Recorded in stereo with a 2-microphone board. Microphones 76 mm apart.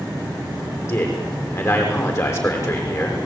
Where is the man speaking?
35° left (ahead or behind), 7 m.